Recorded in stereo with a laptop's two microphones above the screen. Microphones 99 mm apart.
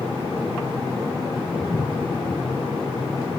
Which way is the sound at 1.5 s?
40° left (ahead or behind).